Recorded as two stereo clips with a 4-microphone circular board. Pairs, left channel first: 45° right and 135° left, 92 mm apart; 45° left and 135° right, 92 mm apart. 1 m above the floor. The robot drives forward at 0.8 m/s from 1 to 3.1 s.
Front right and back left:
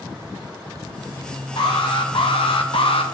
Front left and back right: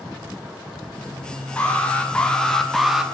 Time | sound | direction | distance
1.6 | an alarm | 25° right | 2 m